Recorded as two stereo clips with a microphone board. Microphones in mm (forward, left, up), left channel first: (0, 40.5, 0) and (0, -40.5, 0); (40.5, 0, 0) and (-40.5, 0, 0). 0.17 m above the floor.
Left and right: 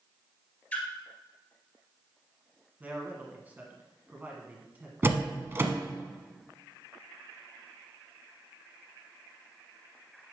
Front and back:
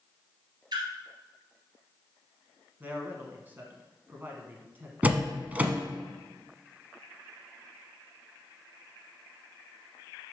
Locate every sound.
0.7 s a splash: 160° left, 1.6 m
2.8 s a man speaking: 140° right, 1.2 m
5.0 s a door slam: 125° right, 0.9 m